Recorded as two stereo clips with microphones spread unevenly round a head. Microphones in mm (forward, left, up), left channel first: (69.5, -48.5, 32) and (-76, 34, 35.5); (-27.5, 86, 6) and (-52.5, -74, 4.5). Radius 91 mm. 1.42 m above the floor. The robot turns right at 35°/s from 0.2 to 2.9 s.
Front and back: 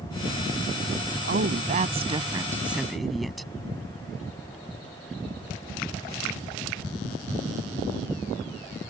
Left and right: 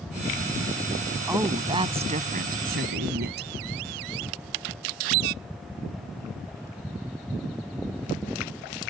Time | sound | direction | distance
1.3 | a woman speaking | 175° right | ?